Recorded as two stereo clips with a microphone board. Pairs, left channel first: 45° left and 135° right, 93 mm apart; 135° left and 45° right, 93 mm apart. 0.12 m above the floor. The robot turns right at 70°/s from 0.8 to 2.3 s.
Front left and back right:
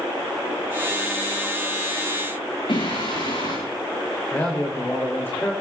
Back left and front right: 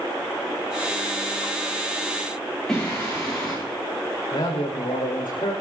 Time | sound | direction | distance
2.7 | singing | 50° left | 9.5 m
4.3 | a man speaking | 115° left | 6.5 m